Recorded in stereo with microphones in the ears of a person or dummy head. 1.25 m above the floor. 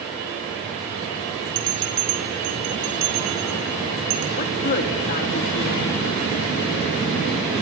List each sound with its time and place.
1.6 s a bell: 70° right (ahead or behind), 4 m
4.4 s a woman speaking: 50° left (ahead or behind), 4.5 m